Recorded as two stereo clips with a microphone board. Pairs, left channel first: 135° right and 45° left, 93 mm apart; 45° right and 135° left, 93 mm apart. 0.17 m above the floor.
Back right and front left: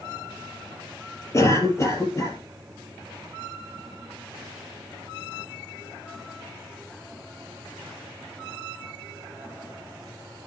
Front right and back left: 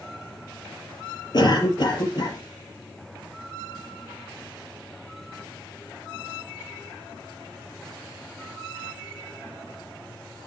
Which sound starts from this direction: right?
A cough, at 1.3 s.